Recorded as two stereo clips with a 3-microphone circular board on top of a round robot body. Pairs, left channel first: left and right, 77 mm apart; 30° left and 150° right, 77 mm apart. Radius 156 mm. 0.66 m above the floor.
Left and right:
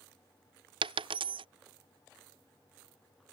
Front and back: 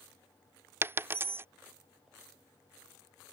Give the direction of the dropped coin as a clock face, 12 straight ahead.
3 o'clock.